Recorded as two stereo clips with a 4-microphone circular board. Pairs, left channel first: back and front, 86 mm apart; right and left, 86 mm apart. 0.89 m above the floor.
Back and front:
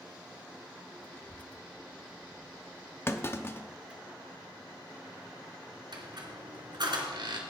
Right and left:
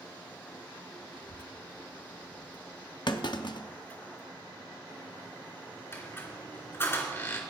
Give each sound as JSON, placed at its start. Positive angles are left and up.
{"t": 1.1, "sound": "a child speaking", "azimuth_deg": 120, "distance_m": 0.7}
{"t": 3.1, "sound": "a clunk", "azimuth_deg": -120, "distance_m": 0.7}
{"t": 5.9, "sound": "a squeak", "azimuth_deg": -30, "distance_m": 2.5}